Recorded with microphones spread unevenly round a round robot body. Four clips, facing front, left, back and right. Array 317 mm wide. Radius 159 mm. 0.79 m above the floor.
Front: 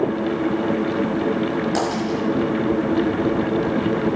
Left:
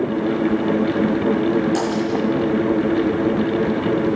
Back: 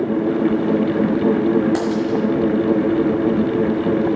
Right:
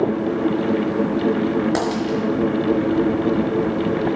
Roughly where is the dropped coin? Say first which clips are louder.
Left 1 dB, back 3 dB; ahead right.